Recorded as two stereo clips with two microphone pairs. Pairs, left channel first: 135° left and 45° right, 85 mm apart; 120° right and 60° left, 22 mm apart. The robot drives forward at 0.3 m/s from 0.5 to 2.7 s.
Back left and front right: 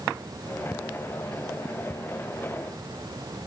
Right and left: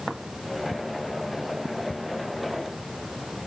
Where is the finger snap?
No finger snap in this recording.